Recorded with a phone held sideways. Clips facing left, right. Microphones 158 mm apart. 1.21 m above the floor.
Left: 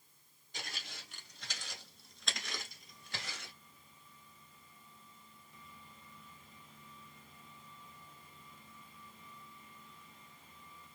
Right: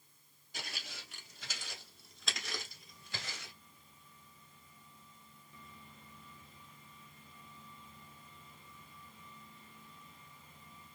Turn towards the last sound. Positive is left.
turn(degrees=0)  # may be behind; listen again after turning